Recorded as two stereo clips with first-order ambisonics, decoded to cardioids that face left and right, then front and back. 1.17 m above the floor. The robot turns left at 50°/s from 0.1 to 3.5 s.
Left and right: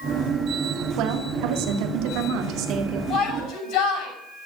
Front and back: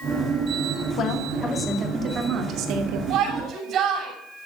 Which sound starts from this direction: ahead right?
A woman speaking, at 1.0 s.